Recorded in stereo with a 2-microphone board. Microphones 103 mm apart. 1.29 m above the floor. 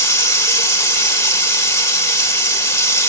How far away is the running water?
About 2 m.